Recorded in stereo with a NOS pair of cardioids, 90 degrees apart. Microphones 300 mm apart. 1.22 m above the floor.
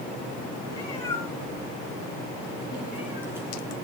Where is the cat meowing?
10° left, 6 m; by 3.7 s 10° right, 5 m.